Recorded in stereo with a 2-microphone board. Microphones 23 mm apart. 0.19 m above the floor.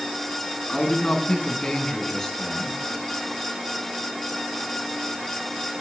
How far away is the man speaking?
About 2 m.